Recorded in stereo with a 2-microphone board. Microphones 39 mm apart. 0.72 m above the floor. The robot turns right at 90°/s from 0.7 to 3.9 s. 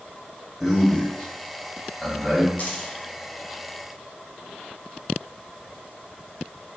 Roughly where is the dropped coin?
Left.